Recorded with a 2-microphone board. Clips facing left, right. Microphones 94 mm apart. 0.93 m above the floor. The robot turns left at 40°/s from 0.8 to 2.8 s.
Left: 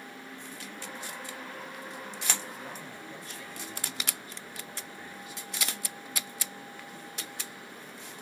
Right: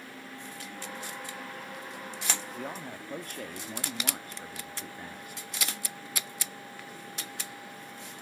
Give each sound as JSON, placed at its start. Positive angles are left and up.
{"t": 2.5, "sound": "a man speaking", "side_deg": -60, "distance_m": 1.8}